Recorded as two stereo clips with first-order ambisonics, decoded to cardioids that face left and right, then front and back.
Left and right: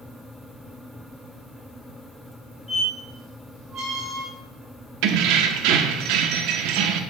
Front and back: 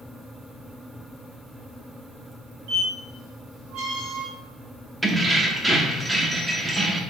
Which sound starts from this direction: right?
Keys jangling, at 5.0 s.